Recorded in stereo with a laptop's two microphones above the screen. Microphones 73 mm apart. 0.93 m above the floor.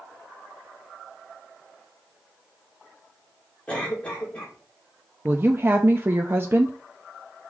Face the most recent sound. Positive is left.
turn(degrees=-30)  # may be behind; listen again after turning